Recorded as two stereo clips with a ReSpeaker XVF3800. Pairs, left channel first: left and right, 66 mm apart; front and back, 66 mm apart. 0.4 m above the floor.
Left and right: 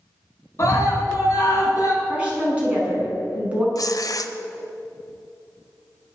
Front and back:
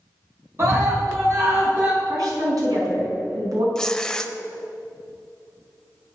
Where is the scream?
135° left, 4.5 m; by 1.9 s 130° left, 5 m.